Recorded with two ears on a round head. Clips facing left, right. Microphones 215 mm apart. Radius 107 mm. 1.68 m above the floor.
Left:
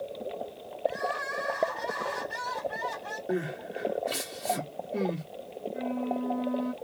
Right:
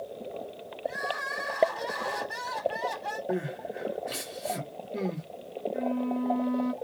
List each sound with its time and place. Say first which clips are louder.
0.8 s crying: left 4 dB; 60° right (ahead or behind), 2.5 m
3.3 s crying: left 1 dB; 5° left (ahead or behind), 1.1 m
5.7 s a flute: right 2 dB; 25° right (ahead or behind), 0.7 m